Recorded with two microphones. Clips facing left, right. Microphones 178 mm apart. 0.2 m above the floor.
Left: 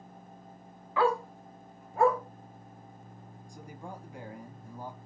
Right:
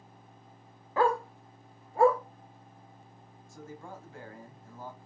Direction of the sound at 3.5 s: 15° left (ahead or behind).